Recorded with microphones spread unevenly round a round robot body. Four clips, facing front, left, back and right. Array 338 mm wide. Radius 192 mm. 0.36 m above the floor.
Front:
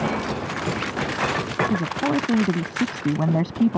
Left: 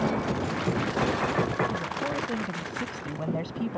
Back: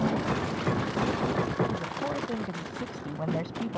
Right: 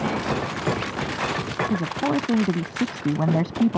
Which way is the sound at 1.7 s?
35° right.